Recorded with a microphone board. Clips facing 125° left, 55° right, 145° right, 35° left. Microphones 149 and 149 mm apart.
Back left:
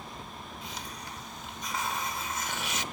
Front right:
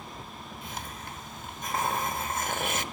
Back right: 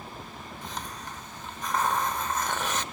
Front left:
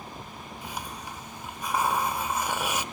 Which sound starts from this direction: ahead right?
A hiss, at 0.6 s.